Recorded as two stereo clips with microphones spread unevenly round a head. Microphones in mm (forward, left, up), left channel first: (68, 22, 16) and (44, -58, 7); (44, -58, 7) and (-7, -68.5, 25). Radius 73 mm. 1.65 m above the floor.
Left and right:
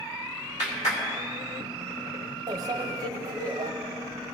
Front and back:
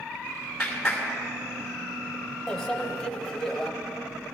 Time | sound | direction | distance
0.6 | a clap | 100° left | 2.5 m
2.5 | a microwave | 95° right | 0.9 m